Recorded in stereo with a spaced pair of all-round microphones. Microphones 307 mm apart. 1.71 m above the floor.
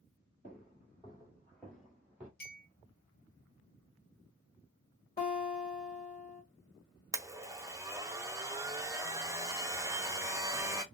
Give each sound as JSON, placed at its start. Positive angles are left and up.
{"t": 0.4, "sound": "footsteps", "side_deg": 20, "distance_m": 1.8}
{"t": 2.4, "sound": "a clink", "side_deg": 30, "distance_m": 1.4}
{"t": 5.2, "sound": "a guitar", "side_deg": 30, "distance_m": 1.5}
{"t": 7.1, "sound": "a blender", "side_deg": -10, "distance_m": 0.5}